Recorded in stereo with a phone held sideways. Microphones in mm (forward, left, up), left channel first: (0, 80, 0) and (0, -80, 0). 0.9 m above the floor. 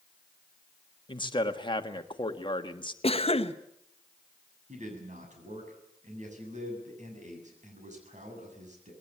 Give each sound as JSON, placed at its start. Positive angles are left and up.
{"t": 1.1, "sound": "a man speaking", "side_deg": 30, "distance_m": 1.5}
{"t": 3.0, "sound": "a cough", "side_deg": 40, "distance_m": 1.2}
{"t": 4.7, "sound": "a man speaking", "side_deg": -55, "distance_m": 7.5}